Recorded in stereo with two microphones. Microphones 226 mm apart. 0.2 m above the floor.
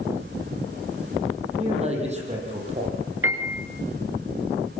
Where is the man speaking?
30° right (ahead or behind), 9 m.